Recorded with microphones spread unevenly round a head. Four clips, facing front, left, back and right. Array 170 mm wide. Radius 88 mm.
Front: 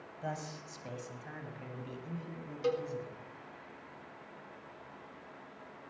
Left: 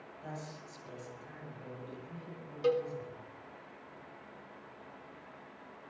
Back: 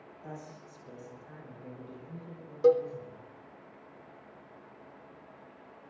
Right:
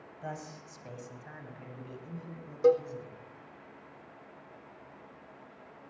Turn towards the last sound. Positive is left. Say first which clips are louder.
# right 6 dB, back 10 dB
turn(degrees=-140)